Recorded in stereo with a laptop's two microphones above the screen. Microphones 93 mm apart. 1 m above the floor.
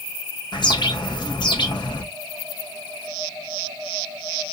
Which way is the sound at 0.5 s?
50° left (ahead or behind).